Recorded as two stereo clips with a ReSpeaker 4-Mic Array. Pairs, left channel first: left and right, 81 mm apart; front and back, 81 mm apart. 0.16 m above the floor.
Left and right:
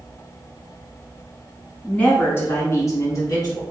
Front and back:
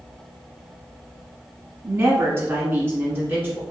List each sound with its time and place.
1.8 s a woman speaking: 150° left, 1.1 m; by 3.6 s 115° left, 1.9 m